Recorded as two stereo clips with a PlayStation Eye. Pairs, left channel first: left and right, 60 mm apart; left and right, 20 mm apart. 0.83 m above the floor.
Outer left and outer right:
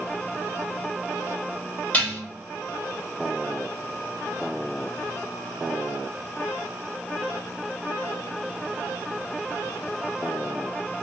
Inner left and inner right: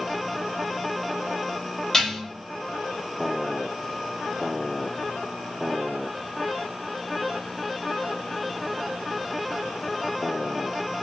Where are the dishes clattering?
30° left (ahead or behind), 1.2 m.